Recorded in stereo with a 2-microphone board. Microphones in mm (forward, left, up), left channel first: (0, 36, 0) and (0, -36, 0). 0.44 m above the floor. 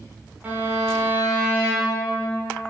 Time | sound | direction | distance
0.4 | a violin | 25° right (ahead or behind) | 1.7 m